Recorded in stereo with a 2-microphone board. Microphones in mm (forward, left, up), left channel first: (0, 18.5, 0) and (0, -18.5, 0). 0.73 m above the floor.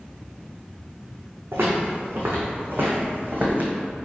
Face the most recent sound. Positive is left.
turn(degrees=-45)  # may be behind; listen again after turning